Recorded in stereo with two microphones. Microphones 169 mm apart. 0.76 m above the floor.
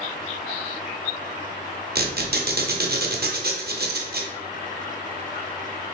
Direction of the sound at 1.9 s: 70° right (ahead or behind).